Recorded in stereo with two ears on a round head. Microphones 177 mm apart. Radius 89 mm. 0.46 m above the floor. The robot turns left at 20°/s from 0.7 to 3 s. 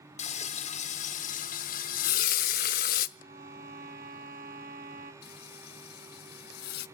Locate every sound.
0.2 s frying: 125° left, 0.7 m; by 3.1 s 80° left, 0.7 m
3.2 s a violin: 45° right (ahead or behind), 2.5 m
5.2 s frying: 50° left (ahead or behind), 0.7 m